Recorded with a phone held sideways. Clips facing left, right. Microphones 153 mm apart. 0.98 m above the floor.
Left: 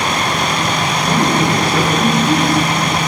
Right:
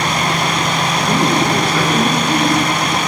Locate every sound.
1.0 s a man speaking: 15° left (ahead or behind), 4 m